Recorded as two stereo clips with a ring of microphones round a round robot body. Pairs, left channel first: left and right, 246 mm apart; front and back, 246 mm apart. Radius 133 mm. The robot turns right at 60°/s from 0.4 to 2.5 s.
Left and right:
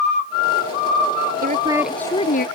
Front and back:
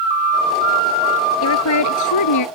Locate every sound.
1.4 s a woman speaking: 30° right; by 2.5 s 30° left